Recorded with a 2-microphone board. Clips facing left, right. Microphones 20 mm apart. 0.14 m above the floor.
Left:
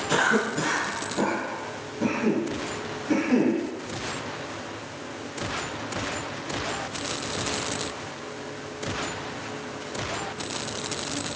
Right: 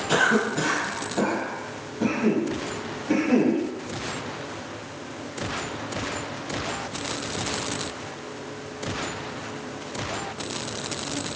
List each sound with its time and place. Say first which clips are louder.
0.1 s a cough: right 2 dB; 10° right (ahead or behind), 1.2 m